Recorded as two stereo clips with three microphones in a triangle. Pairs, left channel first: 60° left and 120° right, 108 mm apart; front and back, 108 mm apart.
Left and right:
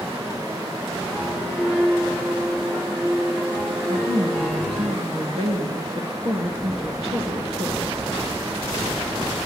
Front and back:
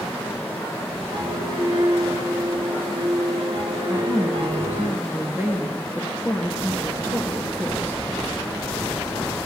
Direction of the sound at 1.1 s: 160° left.